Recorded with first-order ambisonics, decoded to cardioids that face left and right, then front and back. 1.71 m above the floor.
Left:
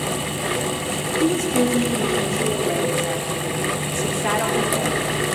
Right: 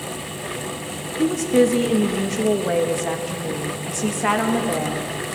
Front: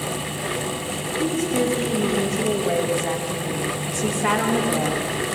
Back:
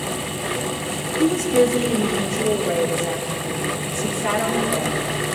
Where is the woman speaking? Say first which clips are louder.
Right 4 dB, back 6 dB; 105° right, 2.5 m; by 5.2 s 55° right, 3.5 m.